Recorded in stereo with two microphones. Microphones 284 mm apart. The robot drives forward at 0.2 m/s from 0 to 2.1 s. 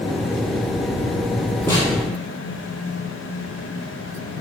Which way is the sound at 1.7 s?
5° left (ahead or behind).